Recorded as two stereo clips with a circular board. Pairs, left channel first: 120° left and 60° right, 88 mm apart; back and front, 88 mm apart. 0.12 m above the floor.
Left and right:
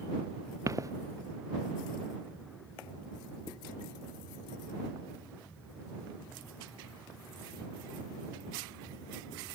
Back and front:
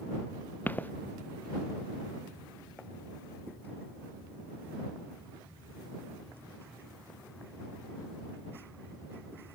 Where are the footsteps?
110° right.